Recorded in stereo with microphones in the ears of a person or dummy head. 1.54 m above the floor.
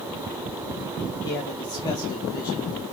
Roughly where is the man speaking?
Left.